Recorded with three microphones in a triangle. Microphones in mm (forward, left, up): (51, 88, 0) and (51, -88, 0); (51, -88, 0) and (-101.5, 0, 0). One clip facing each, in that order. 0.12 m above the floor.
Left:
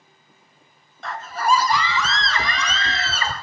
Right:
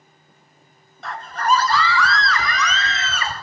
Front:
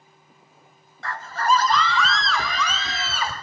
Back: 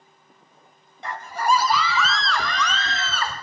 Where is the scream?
Straight behind, 1.3 m; by 3.3 s 45° left, 2 m.